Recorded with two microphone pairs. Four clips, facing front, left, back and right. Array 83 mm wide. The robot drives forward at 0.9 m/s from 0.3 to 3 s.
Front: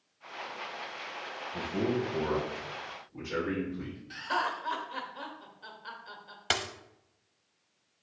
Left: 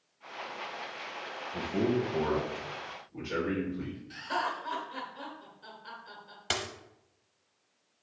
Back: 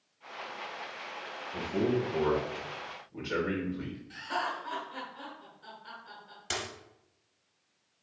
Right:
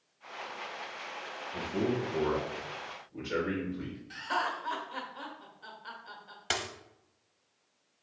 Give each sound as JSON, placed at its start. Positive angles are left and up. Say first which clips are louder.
{"t": 1.5, "sound": "a man speaking", "louder": "left 2 dB, back 2 dB", "azimuth_deg": 160, "distance_m": 1.7}
{"t": 4.1, "sound": "laughter", "louder": "right 1 dB, front 3 dB", "azimuth_deg": -45, "distance_m": 1.0}
{"t": 6.5, "sound": "a dropped coin", "louder": "even, front 5 dB", "azimuth_deg": -20, "distance_m": 0.7}